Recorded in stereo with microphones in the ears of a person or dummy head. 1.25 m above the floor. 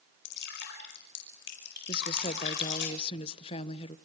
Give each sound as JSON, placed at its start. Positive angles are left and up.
{"t": 0.2, "sound": "dripping", "side_deg": 60, "distance_m": 5.0}
{"t": 1.9, "sound": "a woman speaking", "side_deg": 30, "distance_m": 1.1}